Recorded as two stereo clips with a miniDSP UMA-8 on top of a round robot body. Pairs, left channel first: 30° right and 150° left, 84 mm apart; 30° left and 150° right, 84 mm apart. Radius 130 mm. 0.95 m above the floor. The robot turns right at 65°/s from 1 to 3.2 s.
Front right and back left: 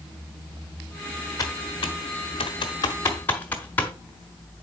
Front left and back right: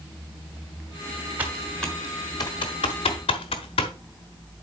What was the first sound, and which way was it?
Typing on a keyboard, 80° right.